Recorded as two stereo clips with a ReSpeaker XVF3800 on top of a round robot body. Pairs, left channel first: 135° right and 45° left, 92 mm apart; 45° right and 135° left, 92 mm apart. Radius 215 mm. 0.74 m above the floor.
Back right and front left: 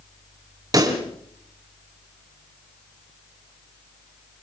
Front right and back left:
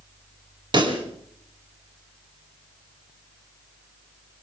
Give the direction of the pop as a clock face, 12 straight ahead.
9 o'clock.